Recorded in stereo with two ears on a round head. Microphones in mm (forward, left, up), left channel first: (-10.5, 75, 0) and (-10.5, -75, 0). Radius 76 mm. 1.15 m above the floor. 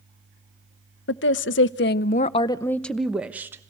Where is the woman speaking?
75° left (ahead or behind), 0.9 m; by 3.6 s 15° right (ahead or behind), 1.1 m.